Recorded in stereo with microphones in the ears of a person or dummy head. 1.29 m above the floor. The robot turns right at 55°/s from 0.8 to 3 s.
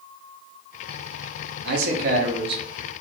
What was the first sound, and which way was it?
A man speaking, 85° right.